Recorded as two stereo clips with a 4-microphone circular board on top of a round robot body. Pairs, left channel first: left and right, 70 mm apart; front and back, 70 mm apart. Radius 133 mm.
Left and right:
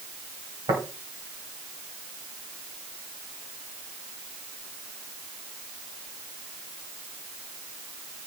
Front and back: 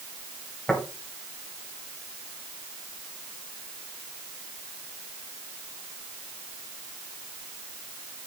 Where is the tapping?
80° right, 2.5 m.